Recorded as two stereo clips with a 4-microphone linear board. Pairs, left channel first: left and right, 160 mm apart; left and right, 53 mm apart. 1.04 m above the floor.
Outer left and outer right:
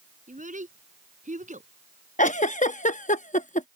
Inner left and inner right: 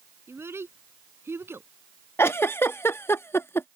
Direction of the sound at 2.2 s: 50° left (ahead or behind).